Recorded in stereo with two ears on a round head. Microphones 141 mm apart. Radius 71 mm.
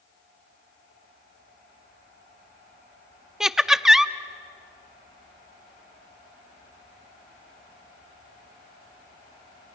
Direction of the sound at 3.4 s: 5° right (ahead or behind).